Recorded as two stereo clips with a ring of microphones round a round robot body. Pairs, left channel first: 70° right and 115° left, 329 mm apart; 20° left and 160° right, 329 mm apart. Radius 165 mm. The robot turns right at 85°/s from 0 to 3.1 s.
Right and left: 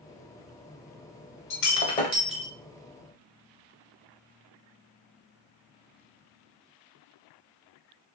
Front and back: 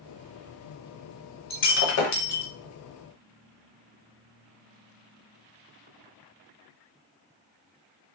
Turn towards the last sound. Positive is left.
turn(degrees=90)